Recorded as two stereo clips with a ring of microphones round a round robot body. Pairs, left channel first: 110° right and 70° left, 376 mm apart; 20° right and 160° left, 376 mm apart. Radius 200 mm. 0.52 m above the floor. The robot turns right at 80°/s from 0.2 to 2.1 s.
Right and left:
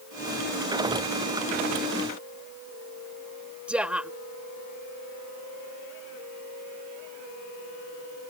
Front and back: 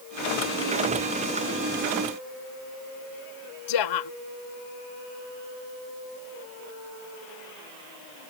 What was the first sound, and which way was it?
A woman speaking, 20° right.